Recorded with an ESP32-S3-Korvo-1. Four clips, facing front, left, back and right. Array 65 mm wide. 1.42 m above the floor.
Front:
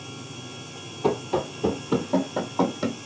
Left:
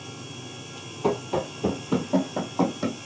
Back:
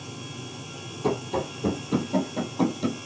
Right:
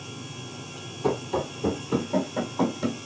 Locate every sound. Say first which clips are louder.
1.0 s running footsteps: left 1 dB, front 2 dB; 40° left, 1.8 m; by 3.0 s 25° left, 2.5 m